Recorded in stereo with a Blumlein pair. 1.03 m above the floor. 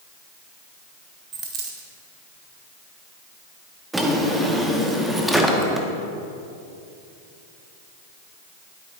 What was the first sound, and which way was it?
A dropped coin, 35° right.